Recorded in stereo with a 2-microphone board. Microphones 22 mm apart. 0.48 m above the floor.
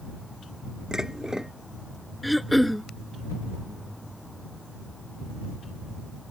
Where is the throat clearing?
Centre (ahead or behind).